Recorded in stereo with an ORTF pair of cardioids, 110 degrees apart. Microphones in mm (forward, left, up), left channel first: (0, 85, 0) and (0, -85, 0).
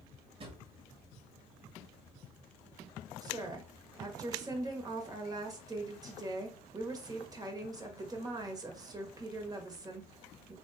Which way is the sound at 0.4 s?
35° right.